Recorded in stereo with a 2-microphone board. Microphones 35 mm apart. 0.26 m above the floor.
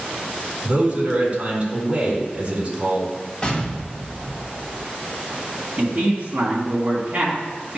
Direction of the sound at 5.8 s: 40° right (ahead or behind).